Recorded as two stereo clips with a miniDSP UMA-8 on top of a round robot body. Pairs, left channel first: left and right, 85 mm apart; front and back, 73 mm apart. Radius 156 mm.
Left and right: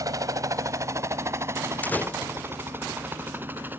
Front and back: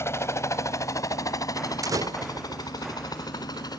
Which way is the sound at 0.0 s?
45° right.